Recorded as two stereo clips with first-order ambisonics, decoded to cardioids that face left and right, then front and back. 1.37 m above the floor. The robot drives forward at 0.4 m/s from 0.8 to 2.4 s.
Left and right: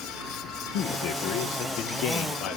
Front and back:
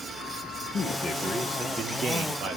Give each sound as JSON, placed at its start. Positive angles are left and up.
{"t": 0.7, "sound": "a man speaking", "azimuth_deg": 70, "distance_m": 0.6}